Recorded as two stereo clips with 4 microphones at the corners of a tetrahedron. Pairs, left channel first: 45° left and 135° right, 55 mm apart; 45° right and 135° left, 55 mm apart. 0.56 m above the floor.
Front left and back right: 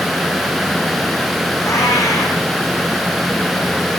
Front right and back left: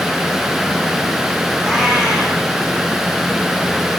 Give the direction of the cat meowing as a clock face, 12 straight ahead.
11 o'clock.